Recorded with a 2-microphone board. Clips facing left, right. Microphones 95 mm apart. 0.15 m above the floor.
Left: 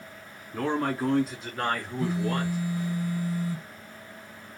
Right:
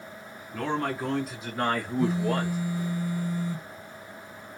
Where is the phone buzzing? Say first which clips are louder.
Right 3 dB; 25° right (ahead or behind), 2 m.